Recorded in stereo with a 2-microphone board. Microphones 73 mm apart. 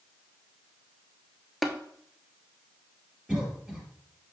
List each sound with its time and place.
1.6 s tapping: centre (ahead or behind), 0.9 m
3.3 s a cough: 10° right (ahead or behind), 2.5 m